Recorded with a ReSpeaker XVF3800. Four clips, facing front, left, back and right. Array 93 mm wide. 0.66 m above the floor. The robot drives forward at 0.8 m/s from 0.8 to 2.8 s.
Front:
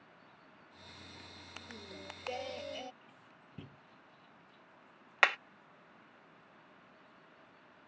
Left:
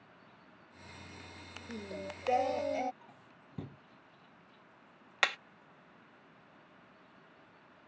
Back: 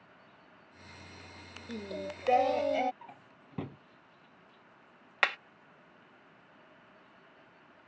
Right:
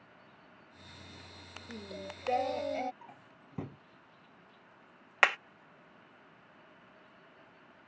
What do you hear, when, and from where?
1.7 s singing: 165° left; by 2.9 s 170° left
3.0 s a drawer: 160° right
5.2 s hammering: 70° right